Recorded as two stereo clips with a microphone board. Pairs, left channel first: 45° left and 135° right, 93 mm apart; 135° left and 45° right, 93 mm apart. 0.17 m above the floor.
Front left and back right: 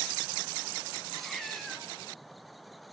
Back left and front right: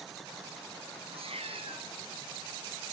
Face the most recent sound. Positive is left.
turn(degrees=-45)